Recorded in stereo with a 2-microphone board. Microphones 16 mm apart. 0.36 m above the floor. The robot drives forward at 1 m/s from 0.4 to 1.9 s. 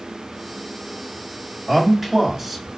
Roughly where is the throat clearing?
I don't hear throat clearing.